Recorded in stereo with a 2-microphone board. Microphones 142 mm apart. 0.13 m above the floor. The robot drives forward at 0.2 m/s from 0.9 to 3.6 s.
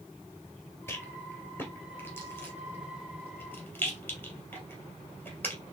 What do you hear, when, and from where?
0.9 s a rattle: 15° left (ahead or behind), 2.5 m